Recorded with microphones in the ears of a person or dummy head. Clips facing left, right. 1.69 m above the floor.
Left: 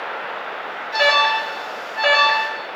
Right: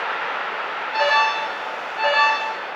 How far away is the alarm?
About 7 m.